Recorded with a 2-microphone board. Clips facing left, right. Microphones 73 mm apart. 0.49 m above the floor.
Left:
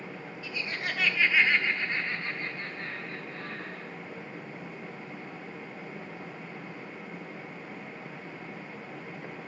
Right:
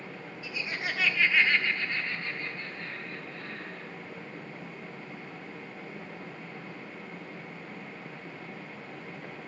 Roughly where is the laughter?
Centre.